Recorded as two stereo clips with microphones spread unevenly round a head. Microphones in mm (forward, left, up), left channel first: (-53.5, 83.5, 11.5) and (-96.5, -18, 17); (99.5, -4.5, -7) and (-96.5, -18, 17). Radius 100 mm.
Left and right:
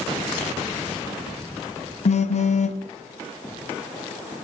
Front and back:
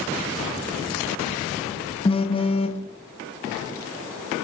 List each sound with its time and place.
2.0 s a phone buzzing: 65° left, 0.6 m